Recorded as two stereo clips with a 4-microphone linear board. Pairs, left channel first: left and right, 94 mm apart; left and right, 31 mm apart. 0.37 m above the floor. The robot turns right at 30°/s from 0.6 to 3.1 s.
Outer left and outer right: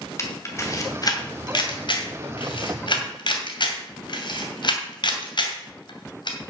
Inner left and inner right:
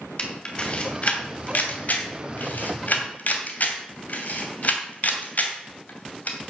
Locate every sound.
0.2 s a camera shutter: 30° left (ahead or behind), 2.5 m; by 6.4 s 55° left (ahead or behind), 2.5 m